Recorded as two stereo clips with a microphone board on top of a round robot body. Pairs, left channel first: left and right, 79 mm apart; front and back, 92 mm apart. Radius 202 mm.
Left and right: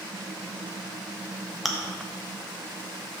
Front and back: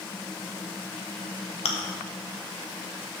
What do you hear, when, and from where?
1.6 s chewing: straight ahead, 0.5 m